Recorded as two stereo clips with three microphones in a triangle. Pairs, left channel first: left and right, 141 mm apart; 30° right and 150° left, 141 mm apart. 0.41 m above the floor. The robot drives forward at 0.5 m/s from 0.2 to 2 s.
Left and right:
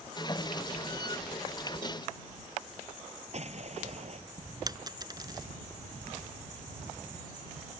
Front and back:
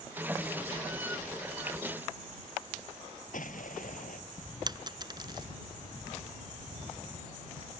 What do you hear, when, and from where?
3.3 s an explosion: 50° right
4.7 s a dropped coin: 150° right